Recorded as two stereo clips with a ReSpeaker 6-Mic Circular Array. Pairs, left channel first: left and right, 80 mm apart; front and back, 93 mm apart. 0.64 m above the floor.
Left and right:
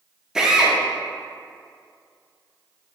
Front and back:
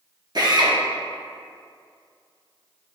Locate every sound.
0.3 s a drill: 170° right, 1.1 m